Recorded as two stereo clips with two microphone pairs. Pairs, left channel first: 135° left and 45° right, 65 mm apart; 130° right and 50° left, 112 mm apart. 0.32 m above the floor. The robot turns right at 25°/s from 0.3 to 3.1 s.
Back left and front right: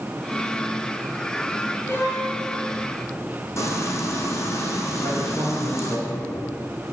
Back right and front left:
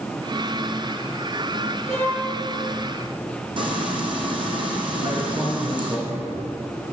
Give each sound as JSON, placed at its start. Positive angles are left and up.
{"t": 1.9, "sound": "a violin", "azimuth_deg": 75, "distance_m": 3.5}
{"t": 3.6, "sound": "frying", "azimuth_deg": 95, "distance_m": 2.5}
{"t": 5.0, "sound": "a man speaking", "azimuth_deg": 95, "distance_m": 5.5}